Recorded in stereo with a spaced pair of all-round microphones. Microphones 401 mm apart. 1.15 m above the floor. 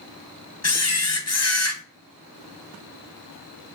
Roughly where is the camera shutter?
Left.